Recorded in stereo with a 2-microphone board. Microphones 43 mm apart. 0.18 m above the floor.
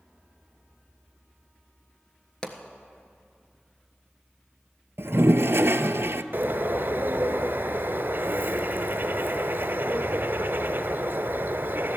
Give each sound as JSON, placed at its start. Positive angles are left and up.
{"t": 2.4, "sound": "a pop", "side_deg": 20, "distance_m": 1.3}
{"t": 5.0, "sound": "a toilet flushing", "side_deg": -65, "distance_m": 0.5}
{"t": 6.3, "sound": "a bird", "side_deg": -55, "distance_m": 0.9}